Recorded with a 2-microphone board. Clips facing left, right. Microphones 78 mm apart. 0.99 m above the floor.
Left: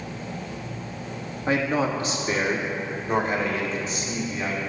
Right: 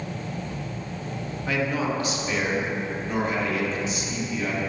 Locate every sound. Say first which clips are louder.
1.5 s a man speaking: left 3 dB; 30° left (ahead or behind), 1.6 m; by 4.6 s 40° left (ahead or behind), 3.5 m